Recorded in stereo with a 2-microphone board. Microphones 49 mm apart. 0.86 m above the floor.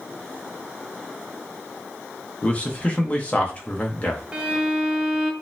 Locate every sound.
2.4 s a man speaking: 30° left (ahead or behind), 0.7 m
4.3 s a violin: 20° right (ahead or behind), 0.5 m